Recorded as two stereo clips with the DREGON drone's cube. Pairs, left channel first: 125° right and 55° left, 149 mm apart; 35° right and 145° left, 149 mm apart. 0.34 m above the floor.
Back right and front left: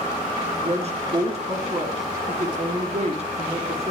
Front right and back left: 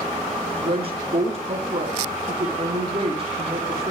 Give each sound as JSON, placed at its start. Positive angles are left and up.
{"t": 0.6, "sound": "a woman speaking", "azimuth_deg": 100, "distance_m": 3.5}